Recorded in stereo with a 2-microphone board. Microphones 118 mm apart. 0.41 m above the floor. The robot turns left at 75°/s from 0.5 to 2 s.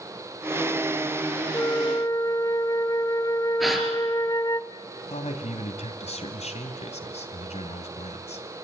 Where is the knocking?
I don't hear knocking.